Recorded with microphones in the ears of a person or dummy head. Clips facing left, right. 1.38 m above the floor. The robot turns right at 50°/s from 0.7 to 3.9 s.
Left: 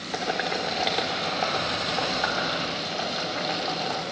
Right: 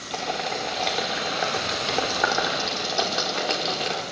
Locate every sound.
0.1 s boiling: 10° left (ahead or behind), 2.5 m; by 4.0 s 30° right (ahead or behind), 2.5 m